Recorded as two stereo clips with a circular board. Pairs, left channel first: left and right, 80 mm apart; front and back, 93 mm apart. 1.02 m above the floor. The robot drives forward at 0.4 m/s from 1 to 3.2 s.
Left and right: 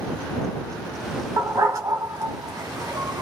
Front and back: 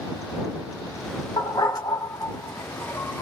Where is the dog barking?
40° right, 1.5 m; by 3.2 s 70° right, 1.1 m.